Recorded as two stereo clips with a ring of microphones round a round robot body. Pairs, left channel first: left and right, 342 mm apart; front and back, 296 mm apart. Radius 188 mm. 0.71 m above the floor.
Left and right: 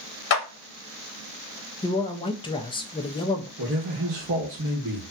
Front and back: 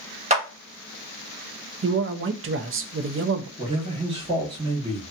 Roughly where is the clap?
Behind left.